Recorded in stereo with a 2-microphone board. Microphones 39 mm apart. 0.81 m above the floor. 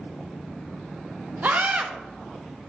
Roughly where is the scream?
Right.